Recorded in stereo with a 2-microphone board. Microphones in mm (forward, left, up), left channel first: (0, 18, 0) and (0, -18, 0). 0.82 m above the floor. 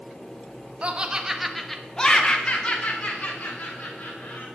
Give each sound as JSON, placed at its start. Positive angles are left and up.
{"t": 0.8, "sound": "laughter", "side_deg": -30, "distance_m": 1.4}